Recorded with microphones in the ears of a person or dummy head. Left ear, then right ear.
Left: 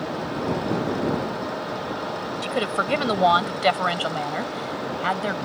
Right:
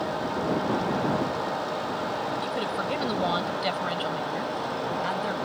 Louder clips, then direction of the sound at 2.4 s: Left 4 dB; 30° left (ahead or behind).